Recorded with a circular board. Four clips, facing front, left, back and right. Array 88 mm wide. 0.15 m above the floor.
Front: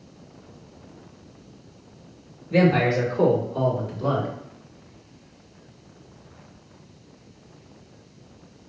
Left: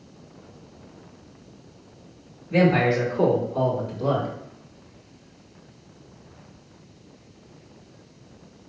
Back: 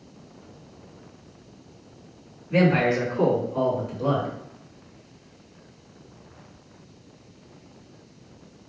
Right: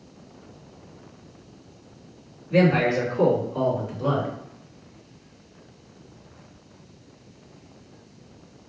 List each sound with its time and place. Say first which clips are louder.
2.5 s a man speaking: even, front 1 dB; 175° right, 1.8 m; by 4.3 s 105° right, 1.6 m